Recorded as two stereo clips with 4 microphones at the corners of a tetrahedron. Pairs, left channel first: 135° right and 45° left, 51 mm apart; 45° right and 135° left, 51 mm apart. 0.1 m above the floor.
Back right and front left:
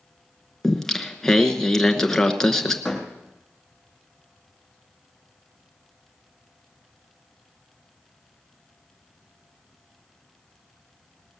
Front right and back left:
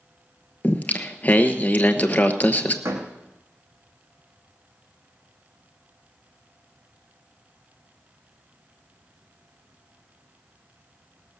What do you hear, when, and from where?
0.6 s singing: 60° right, 1.0 m
2.9 s a door slam: 135° left, 3 m